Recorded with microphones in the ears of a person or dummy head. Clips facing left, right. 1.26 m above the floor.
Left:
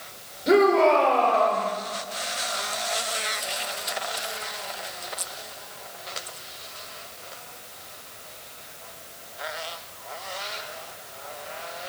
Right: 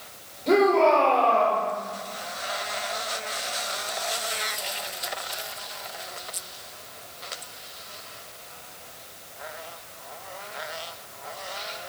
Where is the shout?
15° left (ahead or behind), 4.5 m; by 1.6 s 10° left (ahead or behind), 5 m.